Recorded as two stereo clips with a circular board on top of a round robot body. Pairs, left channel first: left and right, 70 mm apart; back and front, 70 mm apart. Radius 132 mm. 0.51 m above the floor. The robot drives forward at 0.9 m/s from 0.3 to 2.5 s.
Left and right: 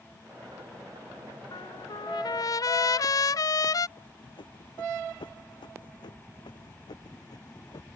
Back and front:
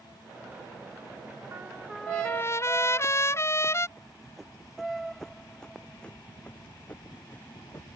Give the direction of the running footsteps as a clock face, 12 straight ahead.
9 o'clock.